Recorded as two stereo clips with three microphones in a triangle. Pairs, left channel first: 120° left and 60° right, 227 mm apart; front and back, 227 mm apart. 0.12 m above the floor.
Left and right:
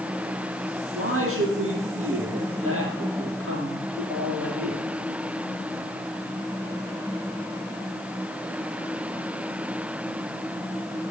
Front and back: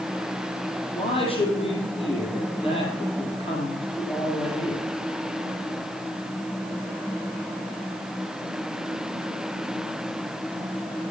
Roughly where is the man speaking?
Ahead right.